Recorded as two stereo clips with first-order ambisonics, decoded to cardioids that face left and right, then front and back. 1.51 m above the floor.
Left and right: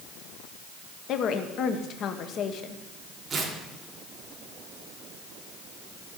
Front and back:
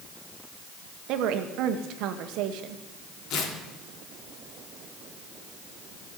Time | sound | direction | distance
1.1 | a woman speaking | 145° left | 1.0 m
3.3 | tearing paper | 20° right | 1.8 m